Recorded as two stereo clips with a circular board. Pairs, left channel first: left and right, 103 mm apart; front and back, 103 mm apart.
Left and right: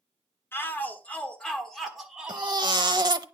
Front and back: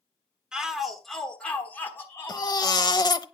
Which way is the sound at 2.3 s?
45° right.